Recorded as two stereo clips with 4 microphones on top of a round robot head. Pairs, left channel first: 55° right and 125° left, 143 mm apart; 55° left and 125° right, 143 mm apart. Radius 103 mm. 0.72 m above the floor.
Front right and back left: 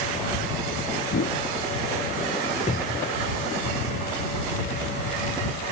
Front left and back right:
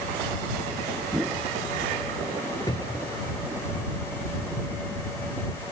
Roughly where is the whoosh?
Ahead right.